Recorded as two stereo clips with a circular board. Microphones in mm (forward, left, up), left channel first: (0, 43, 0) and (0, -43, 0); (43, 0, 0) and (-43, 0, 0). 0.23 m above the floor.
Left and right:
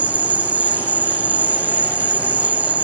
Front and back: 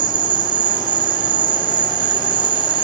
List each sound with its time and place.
0.0 s an insect: 160° right